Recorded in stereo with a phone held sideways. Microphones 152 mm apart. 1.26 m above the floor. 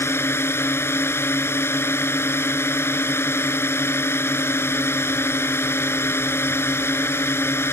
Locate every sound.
0.0 s a drone: 15° left (ahead or behind)